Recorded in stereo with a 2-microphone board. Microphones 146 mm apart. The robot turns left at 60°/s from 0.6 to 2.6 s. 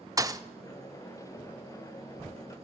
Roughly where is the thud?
Right.